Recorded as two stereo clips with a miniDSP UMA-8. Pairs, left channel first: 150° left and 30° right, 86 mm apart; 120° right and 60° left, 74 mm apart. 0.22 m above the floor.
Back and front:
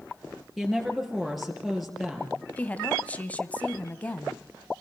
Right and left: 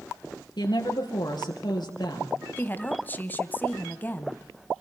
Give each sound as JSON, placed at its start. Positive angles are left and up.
{"t": 0.6, "sound": "a woman speaking", "azimuth_deg": -120, "distance_m": 4.5}
{"t": 2.6, "sound": "a woman speaking", "azimuth_deg": -155, "distance_m": 1.3}